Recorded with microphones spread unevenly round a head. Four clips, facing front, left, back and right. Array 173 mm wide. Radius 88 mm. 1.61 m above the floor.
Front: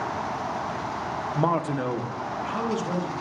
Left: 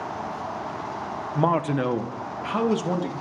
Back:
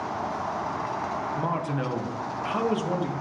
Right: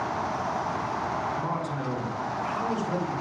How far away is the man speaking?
About 1.1 m.